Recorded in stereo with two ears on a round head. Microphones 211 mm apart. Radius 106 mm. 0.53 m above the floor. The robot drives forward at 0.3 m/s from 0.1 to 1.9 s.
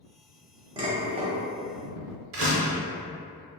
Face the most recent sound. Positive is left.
turn(degrees=-60)  # may be behind; listen again after turning